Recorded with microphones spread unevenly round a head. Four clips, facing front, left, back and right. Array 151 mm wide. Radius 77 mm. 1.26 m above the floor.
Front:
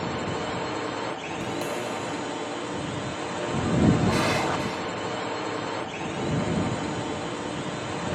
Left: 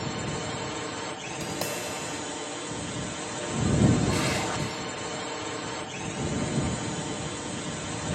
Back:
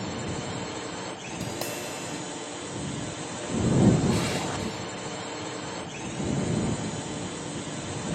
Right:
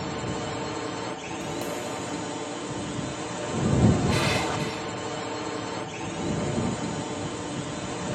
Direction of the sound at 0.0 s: 10° right.